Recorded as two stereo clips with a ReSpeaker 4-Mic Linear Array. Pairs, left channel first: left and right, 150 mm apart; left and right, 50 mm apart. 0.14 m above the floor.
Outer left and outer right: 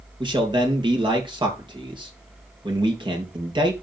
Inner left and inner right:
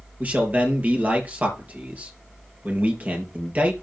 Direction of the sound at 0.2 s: 30° right (ahead or behind).